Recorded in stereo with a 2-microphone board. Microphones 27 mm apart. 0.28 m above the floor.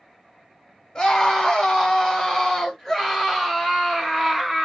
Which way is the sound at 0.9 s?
25° left (ahead or behind).